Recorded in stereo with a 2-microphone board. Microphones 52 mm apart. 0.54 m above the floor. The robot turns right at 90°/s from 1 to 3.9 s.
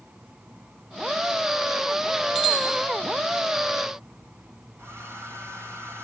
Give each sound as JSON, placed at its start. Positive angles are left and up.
{"t": 2.4, "sound": "a bicycle bell", "azimuth_deg": 170, "distance_m": 9.0}
{"t": 4.8, "sound": "a hair dryer", "side_deg": -60, "distance_m": 3.0}